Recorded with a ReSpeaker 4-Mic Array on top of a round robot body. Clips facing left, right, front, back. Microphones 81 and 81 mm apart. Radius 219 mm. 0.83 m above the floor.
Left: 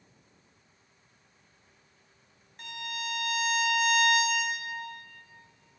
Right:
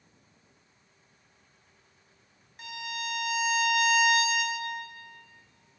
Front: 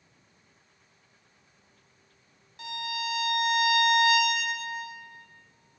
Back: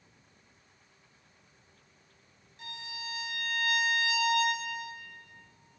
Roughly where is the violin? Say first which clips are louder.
Right 1 dB, front 10 dB; ahead.